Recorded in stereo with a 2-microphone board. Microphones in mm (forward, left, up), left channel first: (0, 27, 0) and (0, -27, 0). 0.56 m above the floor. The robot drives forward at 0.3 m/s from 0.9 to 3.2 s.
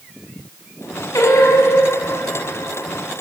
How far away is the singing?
About 7 m.